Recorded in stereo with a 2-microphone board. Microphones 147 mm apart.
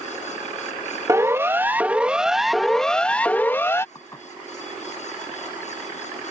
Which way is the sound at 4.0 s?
25° left (ahead or behind).